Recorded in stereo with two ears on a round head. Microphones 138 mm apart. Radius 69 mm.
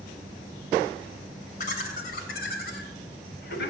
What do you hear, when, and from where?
1.6 s laughter: 55° left (ahead or behind), 3 m; by 3.7 s 70° left (ahead or behind), 3.5 m